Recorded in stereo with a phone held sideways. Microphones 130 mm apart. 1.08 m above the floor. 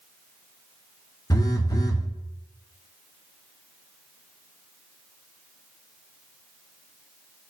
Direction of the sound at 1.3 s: 25° left (ahead or behind).